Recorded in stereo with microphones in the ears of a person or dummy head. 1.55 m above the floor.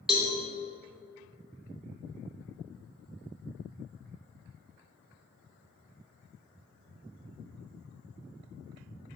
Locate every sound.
0.1 s a cowbell: centre (ahead or behind), 1.2 m